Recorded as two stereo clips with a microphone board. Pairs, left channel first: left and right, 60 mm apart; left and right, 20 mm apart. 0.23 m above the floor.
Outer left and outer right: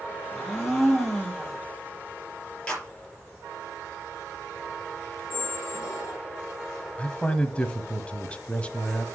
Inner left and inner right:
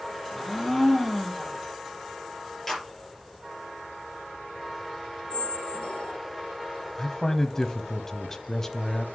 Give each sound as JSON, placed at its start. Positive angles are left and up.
{"t": 0.3, "sound": "a blender", "side_deg": 0, "distance_m": 6.0}
{"t": 2.7, "sound": "a clap", "side_deg": 15, "distance_m": 5.0}
{"t": 5.3, "sound": "a squeak", "side_deg": 65, "distance_m": 0.5}
{"t": 7.0, "sound": "a man speaking", "side_deg": 20, "distance_m": 1.2}